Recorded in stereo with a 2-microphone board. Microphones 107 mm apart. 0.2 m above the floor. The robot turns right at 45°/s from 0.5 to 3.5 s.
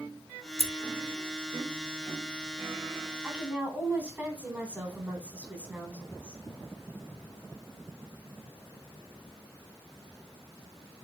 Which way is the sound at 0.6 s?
70° left (ahead or behind).